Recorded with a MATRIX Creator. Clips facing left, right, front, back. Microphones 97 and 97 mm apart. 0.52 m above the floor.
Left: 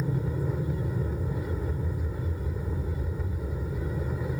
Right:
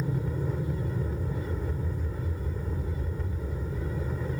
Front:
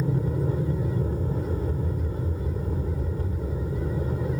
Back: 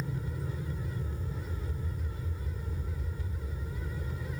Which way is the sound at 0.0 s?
5° left.